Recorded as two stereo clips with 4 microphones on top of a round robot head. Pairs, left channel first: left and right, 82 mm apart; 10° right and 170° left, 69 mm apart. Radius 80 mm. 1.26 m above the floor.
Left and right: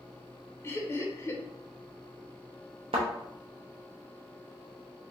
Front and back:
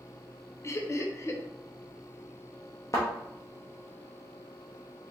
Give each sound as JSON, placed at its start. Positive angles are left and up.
{"t": 0.6, "sound": "laughter", "azimuth_deg": 35, "distance_m": 0.7}
{"t": 2.9, "sound": "a thud", "azimuth_deg": -70, "distance_m": 0.6}